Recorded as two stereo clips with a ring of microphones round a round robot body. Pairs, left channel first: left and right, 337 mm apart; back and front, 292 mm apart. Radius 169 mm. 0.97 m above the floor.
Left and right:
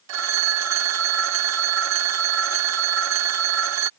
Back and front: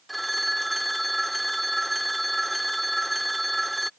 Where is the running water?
I don't hear running water.